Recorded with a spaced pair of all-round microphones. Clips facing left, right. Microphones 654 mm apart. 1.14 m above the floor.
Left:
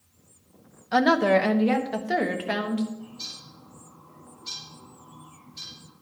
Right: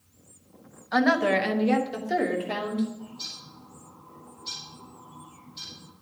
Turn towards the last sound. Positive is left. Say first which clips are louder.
# even
turn(degrees=5)  # may be behind; listen again after turning